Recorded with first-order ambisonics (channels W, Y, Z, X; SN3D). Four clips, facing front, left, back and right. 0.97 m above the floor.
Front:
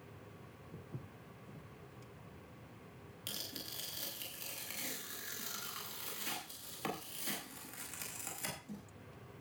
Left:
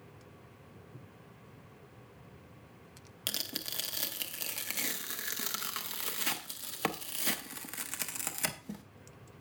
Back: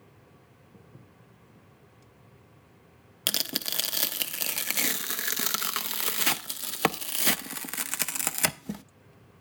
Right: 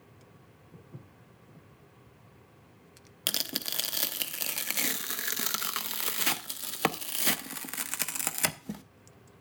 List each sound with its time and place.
0.7 s footsteps: 30° right, 4.5 m
3.3 s tearing paper: 160° right, 0.7 m